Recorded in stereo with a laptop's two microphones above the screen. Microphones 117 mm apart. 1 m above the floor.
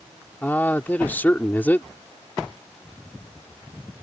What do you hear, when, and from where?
0.4 s a man speaking: 15° left (ahead or behind)